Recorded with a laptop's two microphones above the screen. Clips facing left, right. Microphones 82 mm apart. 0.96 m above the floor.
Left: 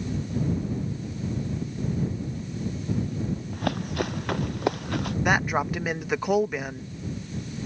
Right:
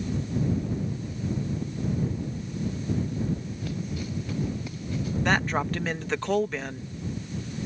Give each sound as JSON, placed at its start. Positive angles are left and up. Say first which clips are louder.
{"t": 3.5, "sound": "running footsteps", "louder": "left 5 dB", "side_deg": 65}
{"t": 5.2, "sound": "a man speaking", "louder": "left 1 dB", "side_deg": 10}